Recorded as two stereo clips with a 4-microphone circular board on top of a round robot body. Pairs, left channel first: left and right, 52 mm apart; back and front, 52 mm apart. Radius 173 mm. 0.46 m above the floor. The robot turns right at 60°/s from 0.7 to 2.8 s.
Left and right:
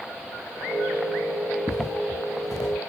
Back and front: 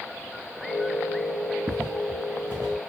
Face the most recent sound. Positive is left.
turn(degrees=85)